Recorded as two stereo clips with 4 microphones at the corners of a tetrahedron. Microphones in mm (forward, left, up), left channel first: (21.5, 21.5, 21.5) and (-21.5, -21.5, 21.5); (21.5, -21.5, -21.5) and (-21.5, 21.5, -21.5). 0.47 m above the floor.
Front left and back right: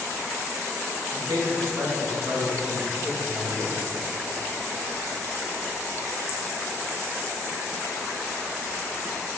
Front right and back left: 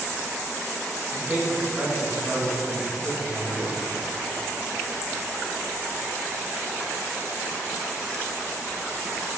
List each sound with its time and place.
1.1 s a man speaking: 165° right, 2.5 m